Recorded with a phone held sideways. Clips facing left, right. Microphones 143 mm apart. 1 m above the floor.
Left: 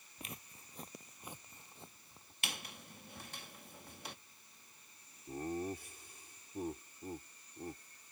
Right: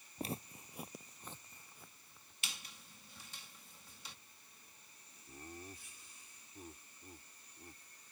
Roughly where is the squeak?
Left.